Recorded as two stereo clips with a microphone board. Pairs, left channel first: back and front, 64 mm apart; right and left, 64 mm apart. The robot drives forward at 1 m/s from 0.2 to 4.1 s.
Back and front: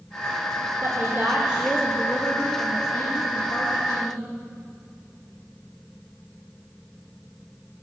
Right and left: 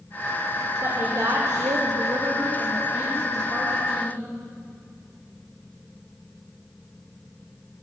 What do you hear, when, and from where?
0.8 s a woman speaking: 45° left, 1.3 m; by 4.3 s 160° left, 2.5 m